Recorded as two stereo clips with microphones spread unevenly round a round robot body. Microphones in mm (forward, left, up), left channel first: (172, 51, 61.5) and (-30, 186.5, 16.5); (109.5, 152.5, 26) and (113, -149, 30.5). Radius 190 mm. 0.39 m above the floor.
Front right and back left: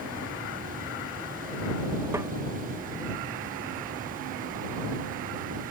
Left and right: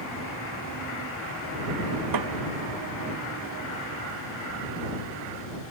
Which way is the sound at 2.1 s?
130° right.